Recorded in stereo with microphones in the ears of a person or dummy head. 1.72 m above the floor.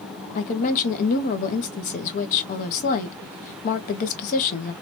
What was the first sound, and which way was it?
A woman speaking, 50° left (ahead or behind).